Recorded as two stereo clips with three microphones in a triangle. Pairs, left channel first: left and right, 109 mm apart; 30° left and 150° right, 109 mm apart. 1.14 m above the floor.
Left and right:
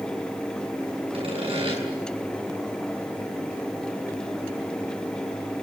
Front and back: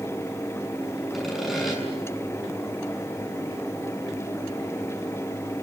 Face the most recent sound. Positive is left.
turn(degrees=-60)